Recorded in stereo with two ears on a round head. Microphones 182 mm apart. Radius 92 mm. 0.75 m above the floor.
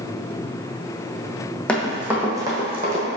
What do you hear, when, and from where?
1.7 s running footsteps: 5° left (ahead or behind), 1.5 m; by 3.0 s 35° right (ahead or behind), 1.6 m